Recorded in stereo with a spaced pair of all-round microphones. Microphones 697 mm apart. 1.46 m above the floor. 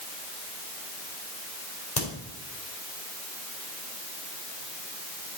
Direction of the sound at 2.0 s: 35° left (ahead or behind).